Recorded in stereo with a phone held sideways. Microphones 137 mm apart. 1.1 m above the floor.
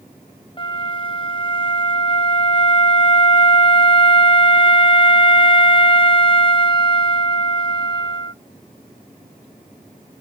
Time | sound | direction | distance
0.6 | a flute | 35° left (ahead or behind) | 0.8 m